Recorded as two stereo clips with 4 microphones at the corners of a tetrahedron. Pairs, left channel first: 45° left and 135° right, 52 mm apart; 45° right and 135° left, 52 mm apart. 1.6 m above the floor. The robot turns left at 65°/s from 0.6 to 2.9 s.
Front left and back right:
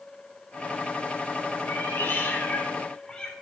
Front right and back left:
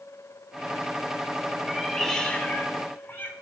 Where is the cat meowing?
55° left, 1.6 m; by 3.3 s 25° right, 1.6 m.